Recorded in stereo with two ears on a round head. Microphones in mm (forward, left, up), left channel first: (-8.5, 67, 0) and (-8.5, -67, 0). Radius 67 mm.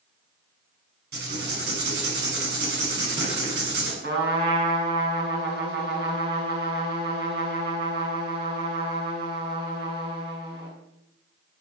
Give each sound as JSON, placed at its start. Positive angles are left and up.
{"t": 1.1, "sound": "writing", "side_deg": -85, "distance_m": 7.0}
{"t": 4.0, "sound": "a trumpet", "side_deg": -75, "distance_m": 6.5}